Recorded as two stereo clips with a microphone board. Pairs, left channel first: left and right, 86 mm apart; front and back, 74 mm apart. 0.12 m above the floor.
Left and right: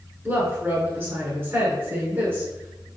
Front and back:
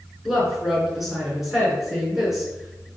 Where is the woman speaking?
95° right, 1.1 m.